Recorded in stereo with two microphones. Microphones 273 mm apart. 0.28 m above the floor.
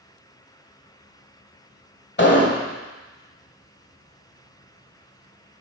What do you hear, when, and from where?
2.2 s an explosion: 40° left (ahead or behind), 1.2 m